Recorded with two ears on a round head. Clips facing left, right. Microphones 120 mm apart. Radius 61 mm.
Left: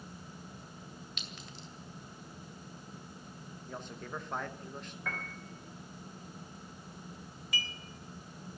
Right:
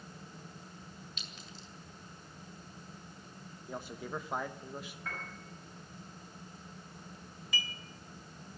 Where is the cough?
No cough in this recording.